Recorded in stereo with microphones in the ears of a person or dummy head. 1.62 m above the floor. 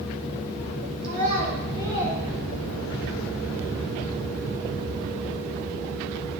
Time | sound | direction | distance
1.0 | a child speaking | 50° right (ahead or behind) | 2 m